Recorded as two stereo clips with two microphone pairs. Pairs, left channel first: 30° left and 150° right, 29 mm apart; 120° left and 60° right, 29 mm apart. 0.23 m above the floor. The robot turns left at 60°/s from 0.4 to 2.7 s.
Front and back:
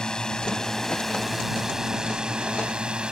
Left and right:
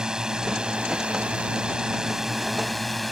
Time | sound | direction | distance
0.0 | a drone | 10° right | ?